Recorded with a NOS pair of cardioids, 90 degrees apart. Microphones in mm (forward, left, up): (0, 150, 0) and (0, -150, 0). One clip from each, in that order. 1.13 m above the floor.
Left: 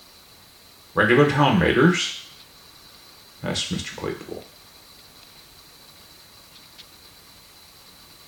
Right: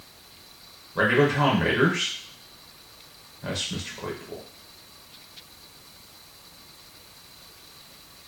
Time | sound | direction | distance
0.9 | a man speaking | 25° left | 0.5 m